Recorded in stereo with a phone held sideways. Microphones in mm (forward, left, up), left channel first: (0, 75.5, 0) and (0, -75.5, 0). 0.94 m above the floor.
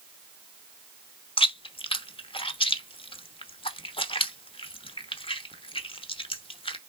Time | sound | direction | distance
1.4 | chewing | 35° left (ahead or behind) | 1.0 m